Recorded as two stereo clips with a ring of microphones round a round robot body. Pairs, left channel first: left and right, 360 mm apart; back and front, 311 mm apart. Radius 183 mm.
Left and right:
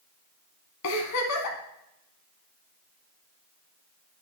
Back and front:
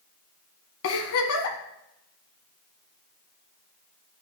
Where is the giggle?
140° left, 1.4 m.